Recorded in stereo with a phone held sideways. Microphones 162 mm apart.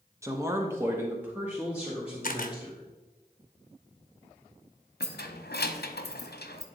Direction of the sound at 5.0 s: 85° left.